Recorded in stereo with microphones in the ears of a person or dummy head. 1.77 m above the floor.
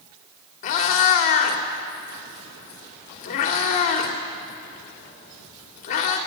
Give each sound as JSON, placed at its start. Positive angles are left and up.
{"t": 0.6, "sound": "a cat meowing", "side_deg": 45, "distance_m": 2.5}